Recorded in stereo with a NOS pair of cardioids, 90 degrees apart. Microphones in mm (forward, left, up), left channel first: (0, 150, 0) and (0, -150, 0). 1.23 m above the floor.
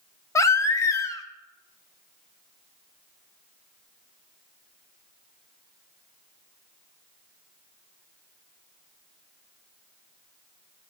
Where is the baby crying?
10° left, 0.5 m.